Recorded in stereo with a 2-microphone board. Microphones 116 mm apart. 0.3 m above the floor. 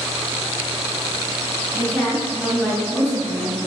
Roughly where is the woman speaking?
Centre.